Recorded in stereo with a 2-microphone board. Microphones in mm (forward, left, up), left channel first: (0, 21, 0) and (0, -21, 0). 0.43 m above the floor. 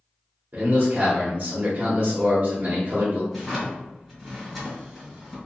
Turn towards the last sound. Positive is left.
turn(degrees=0)  # may be behind; listen again after turning